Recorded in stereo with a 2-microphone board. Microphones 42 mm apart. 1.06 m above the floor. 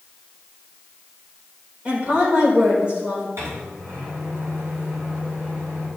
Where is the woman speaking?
30° right (ahead or behind), 4 m.